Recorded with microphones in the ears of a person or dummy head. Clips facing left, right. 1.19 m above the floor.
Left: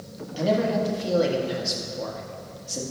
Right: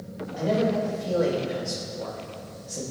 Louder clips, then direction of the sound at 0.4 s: Left 1 dB; 50° left (ahead or behind).